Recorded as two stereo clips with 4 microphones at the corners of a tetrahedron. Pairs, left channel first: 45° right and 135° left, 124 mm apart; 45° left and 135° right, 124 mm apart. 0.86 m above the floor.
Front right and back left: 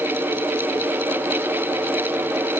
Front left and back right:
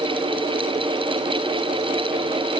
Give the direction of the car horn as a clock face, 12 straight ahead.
No car horn in this recording.